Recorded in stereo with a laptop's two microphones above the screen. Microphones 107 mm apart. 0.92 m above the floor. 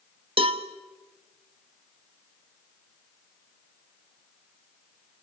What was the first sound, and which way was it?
A cowbell, 60° right (ahead or behind).